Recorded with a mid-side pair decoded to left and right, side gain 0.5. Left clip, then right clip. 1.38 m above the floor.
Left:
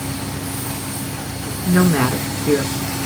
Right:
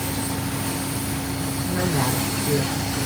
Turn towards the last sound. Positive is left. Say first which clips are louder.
# left 7 dB
turn(degrees=65)